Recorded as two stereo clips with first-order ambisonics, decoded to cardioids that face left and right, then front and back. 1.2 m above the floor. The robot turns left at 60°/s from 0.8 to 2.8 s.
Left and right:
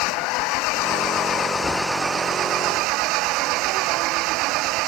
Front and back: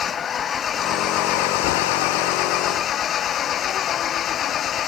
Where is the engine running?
65° left; by 4.9 s 55° right.